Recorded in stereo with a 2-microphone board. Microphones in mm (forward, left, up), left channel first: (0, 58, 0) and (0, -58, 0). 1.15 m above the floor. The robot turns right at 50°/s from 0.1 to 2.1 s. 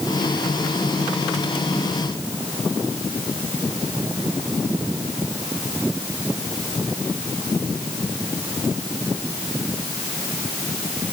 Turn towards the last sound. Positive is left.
No sound to turn to.